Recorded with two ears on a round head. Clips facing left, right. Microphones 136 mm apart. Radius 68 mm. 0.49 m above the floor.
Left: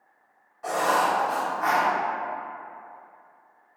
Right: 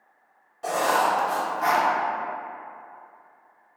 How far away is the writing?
About 0.5 m.